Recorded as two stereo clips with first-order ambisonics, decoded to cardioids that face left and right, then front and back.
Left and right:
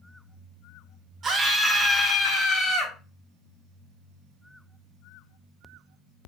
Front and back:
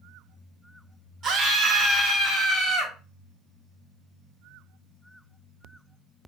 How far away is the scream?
About 0.6 m.